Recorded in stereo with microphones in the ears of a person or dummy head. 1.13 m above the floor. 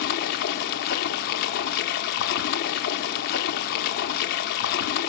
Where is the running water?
50° left (ahead or behind), 1.1 m.